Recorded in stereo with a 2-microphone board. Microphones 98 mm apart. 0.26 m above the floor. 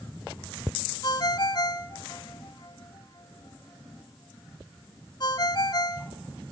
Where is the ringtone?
45° left (ahead or behind), 1.2 m.